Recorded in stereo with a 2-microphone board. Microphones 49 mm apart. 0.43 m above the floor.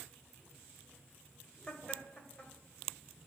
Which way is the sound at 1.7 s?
20° left (ahead or behind).